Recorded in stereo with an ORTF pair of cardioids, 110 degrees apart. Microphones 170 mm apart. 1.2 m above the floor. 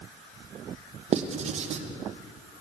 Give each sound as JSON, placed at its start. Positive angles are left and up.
{"t": 1.1, "sound": "writing", "azimuth_deg": -40, "distance_m": 0.8}